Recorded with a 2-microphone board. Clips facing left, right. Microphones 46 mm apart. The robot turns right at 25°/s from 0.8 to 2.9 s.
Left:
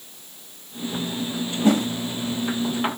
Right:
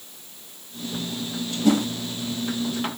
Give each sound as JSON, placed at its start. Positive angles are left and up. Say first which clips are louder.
{"t": 1.6, "sound": "a whoosh", "louder": "left 1 dB", "side_deg": 35, "distance_m": 0.6}